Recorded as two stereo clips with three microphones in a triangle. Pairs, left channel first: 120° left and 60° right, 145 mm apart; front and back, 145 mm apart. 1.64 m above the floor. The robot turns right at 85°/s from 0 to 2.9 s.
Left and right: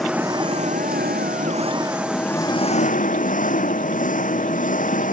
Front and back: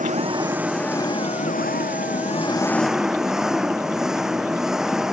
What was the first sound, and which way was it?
An engine running, 150° right.